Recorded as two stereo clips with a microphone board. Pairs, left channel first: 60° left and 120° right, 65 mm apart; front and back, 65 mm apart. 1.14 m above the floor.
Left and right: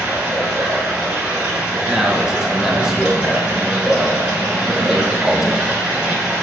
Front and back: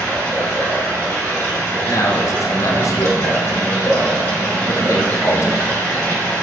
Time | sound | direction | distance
0.0 | running water | 45° right | 2.0 m
1.9 | a man speaking | 40° right | 0.5 m